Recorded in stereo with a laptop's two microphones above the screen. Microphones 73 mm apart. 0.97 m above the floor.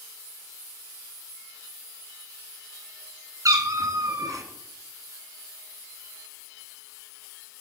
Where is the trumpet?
I don't hear a trumpet.